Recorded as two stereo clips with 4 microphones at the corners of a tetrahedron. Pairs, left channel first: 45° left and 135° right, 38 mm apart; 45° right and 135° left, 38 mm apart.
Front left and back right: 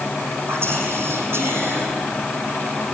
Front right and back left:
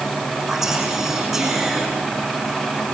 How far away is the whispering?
About 5 m.